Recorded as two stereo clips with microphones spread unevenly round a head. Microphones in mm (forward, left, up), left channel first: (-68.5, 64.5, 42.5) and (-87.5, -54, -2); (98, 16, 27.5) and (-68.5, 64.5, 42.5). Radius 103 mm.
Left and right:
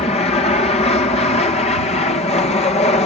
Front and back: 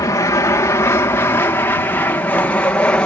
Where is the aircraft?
35° left; by 3.0 s 55° left.